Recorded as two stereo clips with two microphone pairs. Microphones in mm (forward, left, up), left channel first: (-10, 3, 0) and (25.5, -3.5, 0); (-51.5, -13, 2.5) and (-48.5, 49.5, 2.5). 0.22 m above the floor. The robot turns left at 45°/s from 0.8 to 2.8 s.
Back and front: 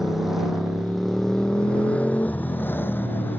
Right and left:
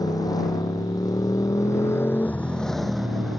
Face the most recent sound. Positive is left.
turn(degrees=180)